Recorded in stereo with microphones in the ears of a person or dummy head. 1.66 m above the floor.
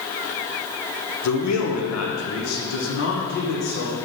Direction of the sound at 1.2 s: 80° left.